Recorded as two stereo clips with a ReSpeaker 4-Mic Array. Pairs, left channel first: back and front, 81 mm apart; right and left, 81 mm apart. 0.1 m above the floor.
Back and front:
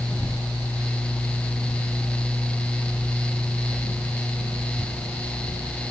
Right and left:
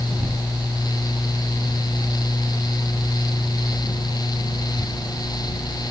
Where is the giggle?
I don't hear a giggle.